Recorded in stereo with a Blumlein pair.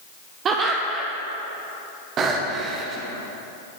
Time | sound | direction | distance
0.5 | laughter | 30° right | 0.9 m
2.2 | breathing | 30° right | 1.4 m